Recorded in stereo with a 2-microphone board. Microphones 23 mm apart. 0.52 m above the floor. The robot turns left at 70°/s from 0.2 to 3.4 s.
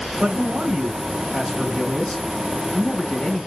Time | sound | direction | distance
0.2 | a man speaking | 95° right | 1.3 m